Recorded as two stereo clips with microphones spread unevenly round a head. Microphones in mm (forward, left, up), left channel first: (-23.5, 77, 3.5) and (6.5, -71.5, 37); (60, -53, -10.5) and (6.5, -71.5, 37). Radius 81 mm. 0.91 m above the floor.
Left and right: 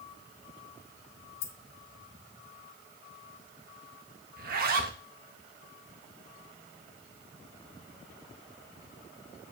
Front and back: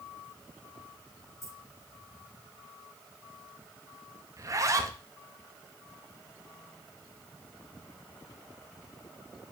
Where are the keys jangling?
105° left, 1.0 m.